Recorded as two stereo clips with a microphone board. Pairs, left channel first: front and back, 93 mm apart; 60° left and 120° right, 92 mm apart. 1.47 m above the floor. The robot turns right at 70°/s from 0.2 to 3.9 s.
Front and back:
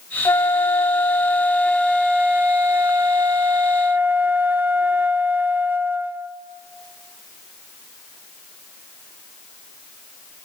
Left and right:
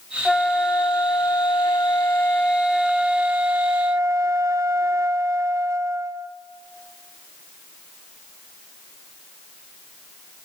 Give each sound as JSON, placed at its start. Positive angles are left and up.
{"t": 0.2, "sound": "a flute", "azimuth_deg": -25, "distance_m": 0.7}